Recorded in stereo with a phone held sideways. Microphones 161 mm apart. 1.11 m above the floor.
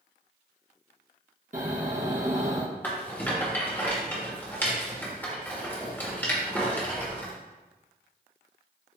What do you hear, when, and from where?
1.5 s snoring: 50° right (ahead or behind), 1.2 m
2.8 s a rattle: 10° left (ahead or behind), 1.2 m